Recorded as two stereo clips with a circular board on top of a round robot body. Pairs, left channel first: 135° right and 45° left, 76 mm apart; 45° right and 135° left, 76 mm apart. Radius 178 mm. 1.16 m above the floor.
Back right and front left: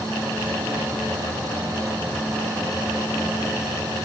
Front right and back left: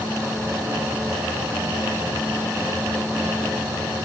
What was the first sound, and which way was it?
Only background noise.